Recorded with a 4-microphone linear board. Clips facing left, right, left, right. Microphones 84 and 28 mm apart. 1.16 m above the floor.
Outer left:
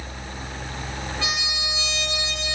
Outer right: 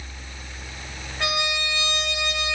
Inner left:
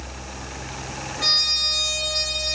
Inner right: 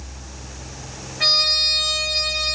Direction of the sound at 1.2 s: 65° right (ahead or behind).